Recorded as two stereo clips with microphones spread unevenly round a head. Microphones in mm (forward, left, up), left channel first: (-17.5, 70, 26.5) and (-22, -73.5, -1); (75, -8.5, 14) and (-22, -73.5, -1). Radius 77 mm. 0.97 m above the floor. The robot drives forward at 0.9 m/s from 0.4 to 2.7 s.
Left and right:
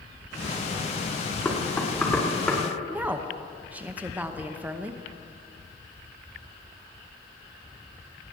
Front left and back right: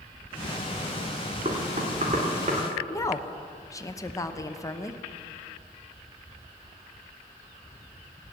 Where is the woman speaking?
25° right, 0.9 m.